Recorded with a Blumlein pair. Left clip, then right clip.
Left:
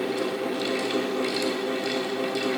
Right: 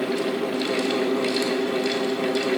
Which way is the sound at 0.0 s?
25° right.